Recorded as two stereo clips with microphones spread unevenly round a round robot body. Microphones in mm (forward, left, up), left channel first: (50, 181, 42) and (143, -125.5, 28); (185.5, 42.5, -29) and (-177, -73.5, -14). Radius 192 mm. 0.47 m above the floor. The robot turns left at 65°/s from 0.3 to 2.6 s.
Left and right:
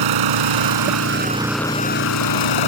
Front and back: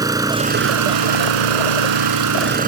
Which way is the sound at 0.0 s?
80° right.